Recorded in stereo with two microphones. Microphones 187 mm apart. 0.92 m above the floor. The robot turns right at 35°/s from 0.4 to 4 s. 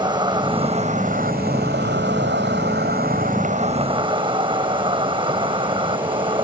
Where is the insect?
155° right; by 6.5 s 30° right.